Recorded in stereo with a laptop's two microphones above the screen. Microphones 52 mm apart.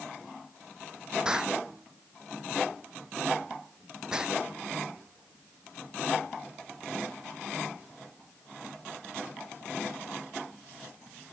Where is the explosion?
15° right (ahead or behind).